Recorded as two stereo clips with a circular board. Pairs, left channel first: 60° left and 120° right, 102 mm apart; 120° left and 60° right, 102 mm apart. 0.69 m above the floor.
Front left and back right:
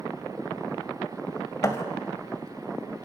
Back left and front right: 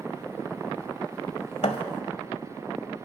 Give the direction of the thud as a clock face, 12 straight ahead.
8 o'clock.